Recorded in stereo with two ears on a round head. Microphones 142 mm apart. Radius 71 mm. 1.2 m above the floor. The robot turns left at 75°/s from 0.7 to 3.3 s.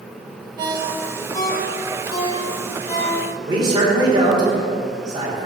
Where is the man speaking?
30° right (ahead or behind), 3 m.